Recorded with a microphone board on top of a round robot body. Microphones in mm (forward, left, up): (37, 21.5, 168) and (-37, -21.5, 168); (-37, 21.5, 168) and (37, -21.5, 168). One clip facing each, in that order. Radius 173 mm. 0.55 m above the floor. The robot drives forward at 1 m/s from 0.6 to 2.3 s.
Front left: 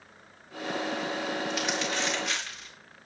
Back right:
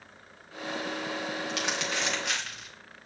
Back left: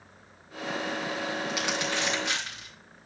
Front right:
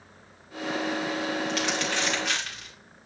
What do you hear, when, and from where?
1.5 s crumpling: 130° right, 2.5 m; by 2.7 s 140° right, 3 m